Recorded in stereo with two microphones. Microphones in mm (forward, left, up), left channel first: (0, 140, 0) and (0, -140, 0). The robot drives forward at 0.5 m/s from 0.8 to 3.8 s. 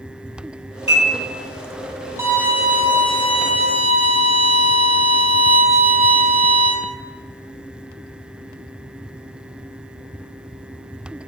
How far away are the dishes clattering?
About 1.9 m.